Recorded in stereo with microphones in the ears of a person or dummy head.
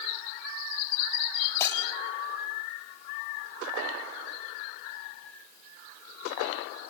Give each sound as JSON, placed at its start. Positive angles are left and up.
{"t": 1.6, "sound": "breaking glass", "side_deg": 15, "distance_m": 4.0}